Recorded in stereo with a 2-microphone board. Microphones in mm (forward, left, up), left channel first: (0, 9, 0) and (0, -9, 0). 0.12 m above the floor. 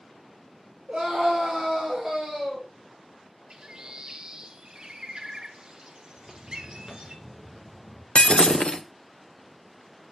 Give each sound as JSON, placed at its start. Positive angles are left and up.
{"t": 0.9, "sound": "a scream", "side_deg": -65, "distance_m": 3.5}
{"t": 3.5, "sound": "a bird", "side_deg": -50, "distance_m": 1.0}
{"t": 6.2, "sound": "footsteps", "side_deg": -35, "distance_m": 2.0}
{"t": 8.2, "sound": "breaking glass", "side_deg": 80, "distance_m": 0.6}